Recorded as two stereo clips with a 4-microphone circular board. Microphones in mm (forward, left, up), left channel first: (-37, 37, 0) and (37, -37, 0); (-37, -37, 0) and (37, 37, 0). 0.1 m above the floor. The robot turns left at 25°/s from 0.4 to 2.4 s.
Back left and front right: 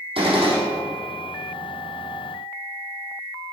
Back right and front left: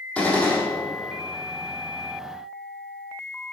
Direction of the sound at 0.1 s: 55° right.